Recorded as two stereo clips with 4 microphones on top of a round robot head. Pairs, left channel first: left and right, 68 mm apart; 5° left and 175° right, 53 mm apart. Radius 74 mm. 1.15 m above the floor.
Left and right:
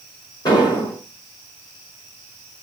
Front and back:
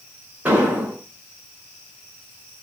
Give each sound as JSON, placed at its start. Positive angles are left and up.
{"t": 0.5, "sound": "an explosion", "azimuth_deg": 125, "distance_m": 6.0}